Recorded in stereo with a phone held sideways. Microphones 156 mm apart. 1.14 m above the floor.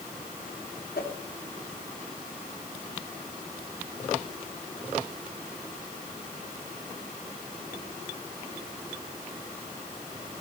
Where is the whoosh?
80° left, 1.9 m.